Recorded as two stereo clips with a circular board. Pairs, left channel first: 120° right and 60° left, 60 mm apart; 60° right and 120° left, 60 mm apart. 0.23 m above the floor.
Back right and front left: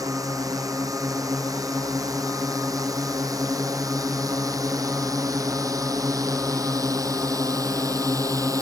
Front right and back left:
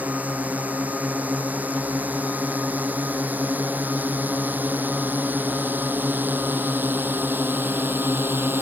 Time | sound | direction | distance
0.0 | a drone | 55° left | ?